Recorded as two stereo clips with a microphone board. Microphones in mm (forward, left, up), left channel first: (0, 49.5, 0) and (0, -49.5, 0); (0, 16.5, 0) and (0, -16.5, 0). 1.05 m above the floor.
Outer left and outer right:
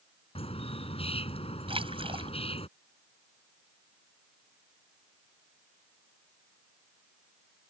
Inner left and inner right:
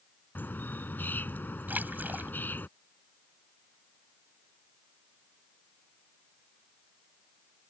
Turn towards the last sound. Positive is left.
turn(degrees=-65)  # may be behind; listen again after turning